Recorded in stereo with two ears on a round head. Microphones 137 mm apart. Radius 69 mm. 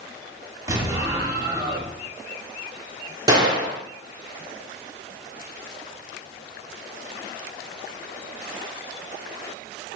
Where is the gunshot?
25° right (ahead or behind), 0.8 m.